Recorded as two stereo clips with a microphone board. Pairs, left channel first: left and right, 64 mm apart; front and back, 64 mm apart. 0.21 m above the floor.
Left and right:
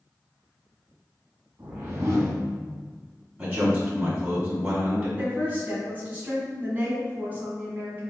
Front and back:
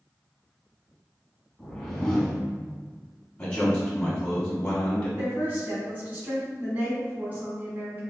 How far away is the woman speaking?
About 1.6 m.